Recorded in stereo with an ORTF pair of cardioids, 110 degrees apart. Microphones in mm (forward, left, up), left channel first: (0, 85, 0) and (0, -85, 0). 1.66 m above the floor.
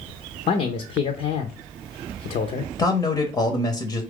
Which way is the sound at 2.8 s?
25° left.